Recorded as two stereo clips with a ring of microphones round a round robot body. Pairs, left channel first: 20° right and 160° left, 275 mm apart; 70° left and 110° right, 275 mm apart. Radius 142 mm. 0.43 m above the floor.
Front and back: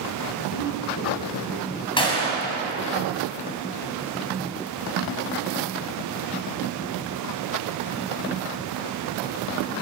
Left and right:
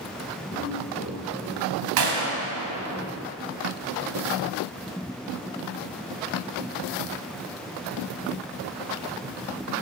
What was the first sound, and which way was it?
Footsteps, straight ahead.